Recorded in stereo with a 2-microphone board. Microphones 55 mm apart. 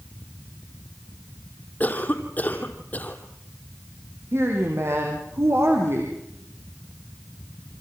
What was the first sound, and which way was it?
A cough, 30° left (ahead or behind).